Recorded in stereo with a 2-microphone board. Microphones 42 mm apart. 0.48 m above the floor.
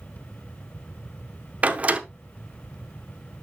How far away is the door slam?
About 0.8 m.